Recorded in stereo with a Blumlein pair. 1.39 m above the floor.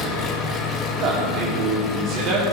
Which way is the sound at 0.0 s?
25° left.